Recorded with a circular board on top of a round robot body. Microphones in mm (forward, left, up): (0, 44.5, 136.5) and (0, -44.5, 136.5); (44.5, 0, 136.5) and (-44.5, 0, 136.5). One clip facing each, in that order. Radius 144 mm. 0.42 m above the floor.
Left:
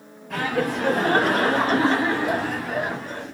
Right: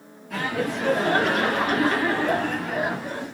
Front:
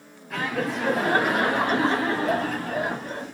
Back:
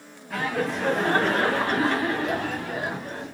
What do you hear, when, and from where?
0.3 s laughter: 95° left, 2 m; by 3.3 s 15° right, 1.8 m